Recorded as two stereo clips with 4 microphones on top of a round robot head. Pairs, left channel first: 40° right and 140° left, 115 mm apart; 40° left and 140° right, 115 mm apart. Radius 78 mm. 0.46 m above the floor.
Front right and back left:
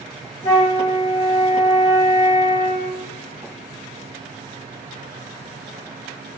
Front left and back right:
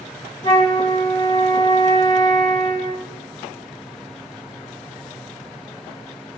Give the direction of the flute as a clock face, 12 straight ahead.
12 o'clock.